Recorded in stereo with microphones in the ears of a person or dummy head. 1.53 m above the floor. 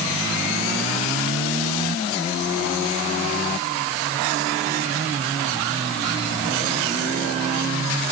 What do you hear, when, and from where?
Only background noise.